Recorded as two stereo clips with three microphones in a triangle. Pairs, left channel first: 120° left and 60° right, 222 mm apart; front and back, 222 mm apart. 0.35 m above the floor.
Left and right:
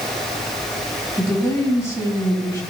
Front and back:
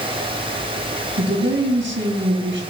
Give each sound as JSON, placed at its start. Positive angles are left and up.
{"t": 1.2, "sound": "a woman speaking", "azimuth_deg": -165, "distance_m": 3.0}